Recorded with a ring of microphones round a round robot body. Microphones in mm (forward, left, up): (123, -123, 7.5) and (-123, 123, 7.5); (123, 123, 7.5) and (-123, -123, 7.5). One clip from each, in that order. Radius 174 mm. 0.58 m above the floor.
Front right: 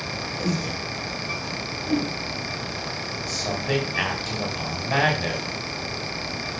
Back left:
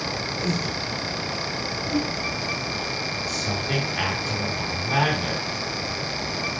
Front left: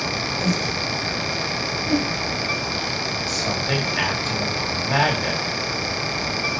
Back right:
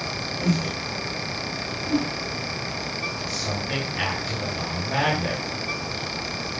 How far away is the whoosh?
About 5 m.